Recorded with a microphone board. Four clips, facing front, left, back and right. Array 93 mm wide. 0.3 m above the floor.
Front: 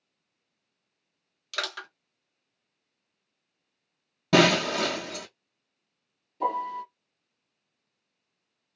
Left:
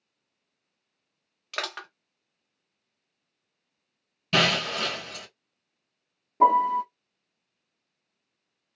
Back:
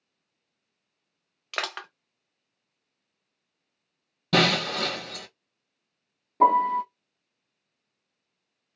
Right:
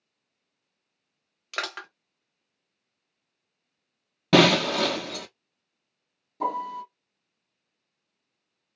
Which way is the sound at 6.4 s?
155° left.